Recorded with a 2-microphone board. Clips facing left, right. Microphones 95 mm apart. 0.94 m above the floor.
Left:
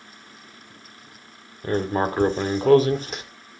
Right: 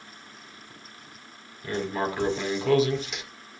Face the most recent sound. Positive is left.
turn(degrees=45)  # may be behind; listen again after turning